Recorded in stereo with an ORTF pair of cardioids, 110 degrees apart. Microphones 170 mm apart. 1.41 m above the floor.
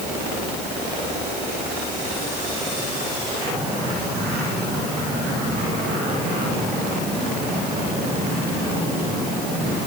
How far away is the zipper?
I don't hear a zipper.